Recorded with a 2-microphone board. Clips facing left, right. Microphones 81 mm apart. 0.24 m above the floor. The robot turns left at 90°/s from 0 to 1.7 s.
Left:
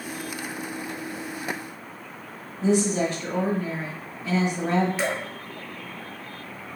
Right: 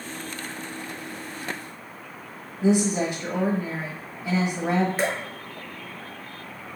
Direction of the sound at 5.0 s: 45° right (ahead or behind).